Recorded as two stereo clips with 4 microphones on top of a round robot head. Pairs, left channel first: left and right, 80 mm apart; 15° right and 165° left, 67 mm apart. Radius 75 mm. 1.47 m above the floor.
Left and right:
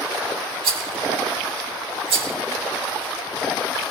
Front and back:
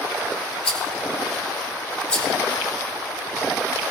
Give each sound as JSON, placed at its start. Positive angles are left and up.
{"t": 0.6, "sound": "a rattle", "azimuth_deg": -90, "distance_m": 3.0}